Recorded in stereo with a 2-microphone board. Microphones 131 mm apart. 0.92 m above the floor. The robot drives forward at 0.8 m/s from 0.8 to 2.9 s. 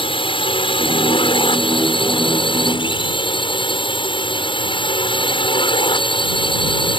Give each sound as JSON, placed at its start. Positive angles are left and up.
{"t": 0.0, "sound": "a drone", "side_deg": 40}